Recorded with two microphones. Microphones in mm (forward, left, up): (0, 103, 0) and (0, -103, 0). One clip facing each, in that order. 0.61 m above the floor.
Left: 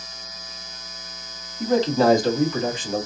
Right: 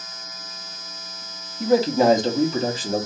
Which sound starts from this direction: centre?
A man speaking, at 1.6 s.